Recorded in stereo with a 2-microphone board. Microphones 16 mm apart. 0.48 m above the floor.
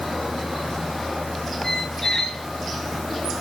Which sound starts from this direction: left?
A squeak, at 1.6 s.